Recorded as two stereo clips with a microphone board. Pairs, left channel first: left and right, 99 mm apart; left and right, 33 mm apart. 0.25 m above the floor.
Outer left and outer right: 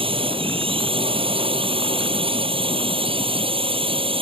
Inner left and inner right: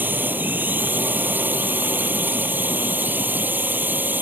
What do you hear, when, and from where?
0.0 s a drone: 65° right (ahead or behind)